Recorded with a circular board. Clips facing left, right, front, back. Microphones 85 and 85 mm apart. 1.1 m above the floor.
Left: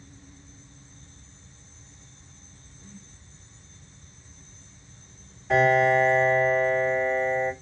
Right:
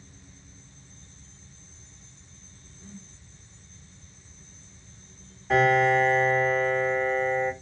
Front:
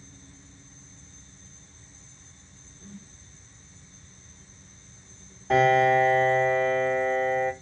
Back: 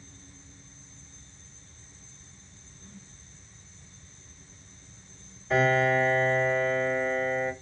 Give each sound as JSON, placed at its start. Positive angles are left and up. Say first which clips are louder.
{"t": 2.8, "sound": "a whoosh", "louder": "right 3 dB, front 5 dB", "azimuth_deg": -20, "distance_m": 1.0}
{"t": 5.5, "sound": "a piano", "louder": "left 1 dB, front 4 dB", "azimuth_deg": 5, "distance_m": 2.5}